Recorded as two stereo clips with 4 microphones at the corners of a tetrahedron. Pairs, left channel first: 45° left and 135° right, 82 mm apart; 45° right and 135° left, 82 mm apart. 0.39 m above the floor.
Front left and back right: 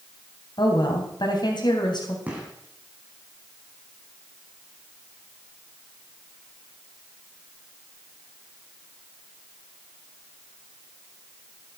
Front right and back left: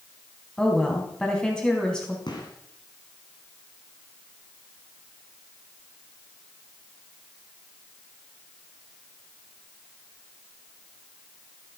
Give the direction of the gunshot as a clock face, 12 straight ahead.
2 o'clock.